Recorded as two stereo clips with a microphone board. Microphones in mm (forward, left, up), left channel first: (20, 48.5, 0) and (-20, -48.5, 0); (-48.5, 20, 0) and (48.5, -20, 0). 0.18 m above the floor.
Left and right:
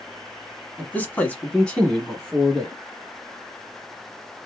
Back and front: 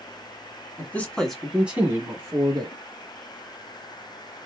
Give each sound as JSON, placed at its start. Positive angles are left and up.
{"t": 0.8, "sound": "a man speaking", "azimuth_deg": 120, "distance_m": 1.0}